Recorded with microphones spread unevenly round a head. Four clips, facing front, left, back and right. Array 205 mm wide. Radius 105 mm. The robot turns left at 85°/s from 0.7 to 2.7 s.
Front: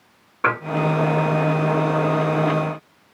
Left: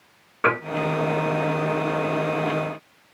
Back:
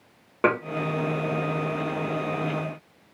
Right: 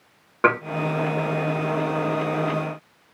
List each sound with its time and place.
0.4 s dishes clattering: 145° right, 1.2 m